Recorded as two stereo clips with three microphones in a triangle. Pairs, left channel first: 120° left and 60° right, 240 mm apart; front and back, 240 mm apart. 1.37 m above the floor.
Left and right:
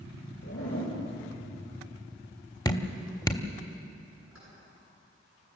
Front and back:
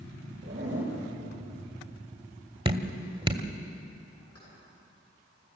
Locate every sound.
0.4 s a zipper: 140° left, 7.5 m
2.6 s dripping: 165° left, 1.2 m
4.3 s keys jangling: 25° right, 10 m